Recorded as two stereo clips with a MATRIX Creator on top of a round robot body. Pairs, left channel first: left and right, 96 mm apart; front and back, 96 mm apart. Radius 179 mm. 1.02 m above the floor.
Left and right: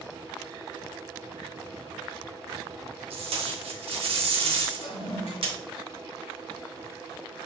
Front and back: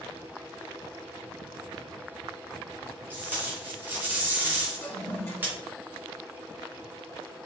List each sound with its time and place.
3.1 s tape being pulled: 110° right, 3 m
4.8 s a toilet flushing: 65° left, 5.5 m